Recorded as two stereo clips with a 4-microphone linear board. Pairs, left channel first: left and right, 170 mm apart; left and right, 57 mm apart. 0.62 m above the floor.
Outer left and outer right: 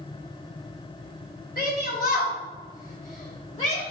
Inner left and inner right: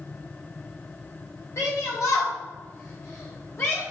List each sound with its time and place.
1.6 s a shout: 60° left (ahead or behind), 2.5 m; by 3.8 s 40° left (ahead or behind), 2.5 m